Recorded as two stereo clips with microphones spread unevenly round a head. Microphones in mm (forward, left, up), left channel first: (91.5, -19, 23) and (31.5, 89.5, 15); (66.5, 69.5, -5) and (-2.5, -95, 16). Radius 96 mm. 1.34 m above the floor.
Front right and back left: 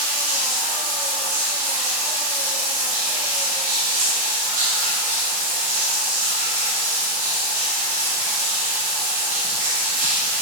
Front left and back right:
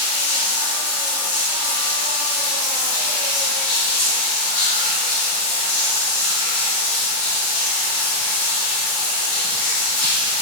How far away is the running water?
About 1.8 m.